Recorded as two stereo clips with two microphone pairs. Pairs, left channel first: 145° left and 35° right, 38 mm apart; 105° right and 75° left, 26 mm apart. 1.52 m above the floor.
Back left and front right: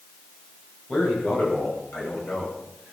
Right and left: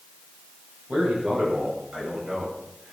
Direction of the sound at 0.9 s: 110° left.